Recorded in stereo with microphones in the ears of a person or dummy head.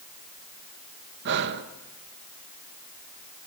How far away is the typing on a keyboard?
I don't hear typing on a keyboard.